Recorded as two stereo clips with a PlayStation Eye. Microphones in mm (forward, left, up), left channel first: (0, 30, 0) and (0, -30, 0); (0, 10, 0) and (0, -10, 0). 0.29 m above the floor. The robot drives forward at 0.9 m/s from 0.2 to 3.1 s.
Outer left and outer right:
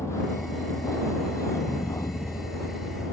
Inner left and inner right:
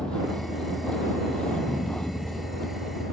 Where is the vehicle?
55° left (ahead or behind); by 3.1 s 75° left (ahead or behind).